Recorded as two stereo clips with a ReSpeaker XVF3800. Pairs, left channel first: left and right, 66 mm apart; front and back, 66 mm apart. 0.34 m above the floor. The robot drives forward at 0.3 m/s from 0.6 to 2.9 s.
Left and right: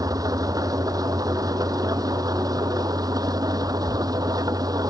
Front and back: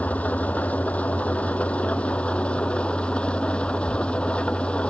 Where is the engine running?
70° right; by 4.9 s 75° right.